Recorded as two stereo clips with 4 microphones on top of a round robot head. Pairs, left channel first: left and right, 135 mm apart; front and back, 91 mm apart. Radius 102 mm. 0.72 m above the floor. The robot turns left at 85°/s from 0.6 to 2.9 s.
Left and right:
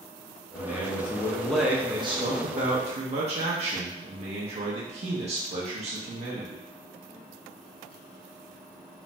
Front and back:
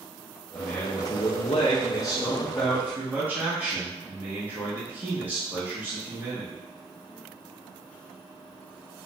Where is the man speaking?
85° left, 0.6 m; by 6.6 s 110° right, 0.6 m.